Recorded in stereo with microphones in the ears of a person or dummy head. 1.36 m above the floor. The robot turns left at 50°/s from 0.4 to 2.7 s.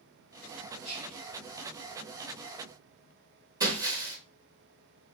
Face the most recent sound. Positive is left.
turn(degrees=-15)  # may be behind; listen again after turning